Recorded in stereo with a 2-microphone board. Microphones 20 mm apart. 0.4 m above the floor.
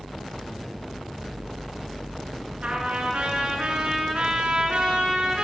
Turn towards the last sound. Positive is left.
turn(degrees=-65)  # may be behind; listen again after turning